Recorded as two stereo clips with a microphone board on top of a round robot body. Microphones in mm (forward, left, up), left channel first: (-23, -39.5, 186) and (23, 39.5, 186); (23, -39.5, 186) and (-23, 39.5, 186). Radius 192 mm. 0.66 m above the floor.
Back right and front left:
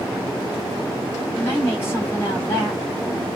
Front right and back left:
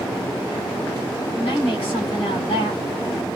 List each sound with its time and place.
1.3 s a woman speaking: 55° right, 2.5 m